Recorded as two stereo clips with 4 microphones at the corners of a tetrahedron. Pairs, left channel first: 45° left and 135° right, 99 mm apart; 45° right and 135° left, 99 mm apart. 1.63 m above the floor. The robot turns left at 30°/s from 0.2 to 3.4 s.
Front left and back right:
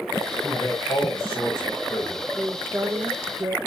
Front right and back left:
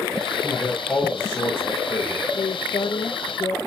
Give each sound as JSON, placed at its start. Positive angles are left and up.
{"t": 0.4, "sound": "a man speaking", "azimuth_deg": 40, "distance_m": 5.0}
{"t": 2.4, "sound": "a woman speaking", "azimuth_deg": -55, "distance_m": 0.6}